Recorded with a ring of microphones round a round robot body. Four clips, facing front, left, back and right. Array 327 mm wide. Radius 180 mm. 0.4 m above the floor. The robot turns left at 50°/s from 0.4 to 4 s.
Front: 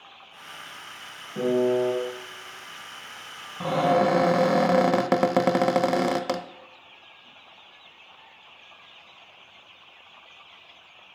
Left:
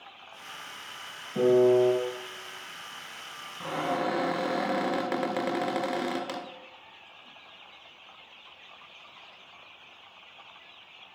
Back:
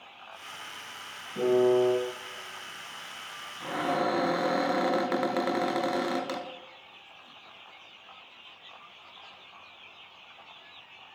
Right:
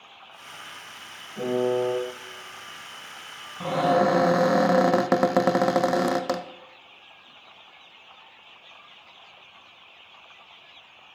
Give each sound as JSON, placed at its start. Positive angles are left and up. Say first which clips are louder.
{"t": 1.4, "sound": "a piano", "louder": "left 4 dB, even", "azimuth_deg": 75, "distance_m": 3.0}
{"t": 3.6, "sound": "a cupboard door", "louder": "right 9 dB, front 8 dB", "azimuth_deg": -25, "distance_m": 0.6}